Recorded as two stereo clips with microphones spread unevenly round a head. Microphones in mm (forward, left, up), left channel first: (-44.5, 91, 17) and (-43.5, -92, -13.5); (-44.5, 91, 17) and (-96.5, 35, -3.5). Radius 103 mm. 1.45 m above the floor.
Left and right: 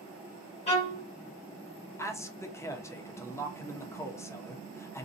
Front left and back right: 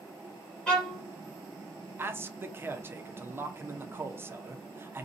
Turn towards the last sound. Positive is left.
turn(degrees=170)